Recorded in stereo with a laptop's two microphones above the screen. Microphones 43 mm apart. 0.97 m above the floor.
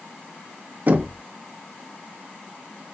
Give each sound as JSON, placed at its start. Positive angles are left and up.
{"t": 0.9, "sound": "knocking", "side_deg": -50, "distance_m": 1.2}